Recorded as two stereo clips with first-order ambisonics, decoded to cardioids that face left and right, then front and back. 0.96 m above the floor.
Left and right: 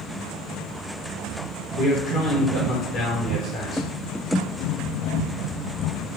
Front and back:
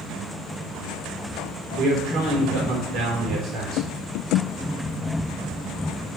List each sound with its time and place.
1.8 s a man speaking: 140° left, 2.5 m